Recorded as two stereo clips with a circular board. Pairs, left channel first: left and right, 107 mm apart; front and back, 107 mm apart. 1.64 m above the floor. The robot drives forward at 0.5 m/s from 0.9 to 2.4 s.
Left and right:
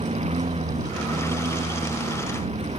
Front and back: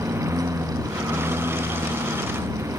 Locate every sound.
0.0 s a lawn mower: 115° right